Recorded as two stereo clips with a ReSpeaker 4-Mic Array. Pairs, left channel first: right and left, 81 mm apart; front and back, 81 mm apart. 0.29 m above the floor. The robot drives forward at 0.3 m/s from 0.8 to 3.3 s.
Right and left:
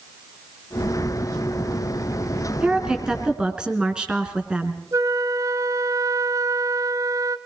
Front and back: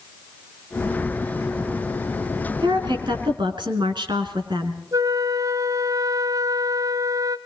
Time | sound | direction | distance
2.6 | a woman speaking | 170° left | 2.5 m
4.9 | a flute | 135° left | 0.7 m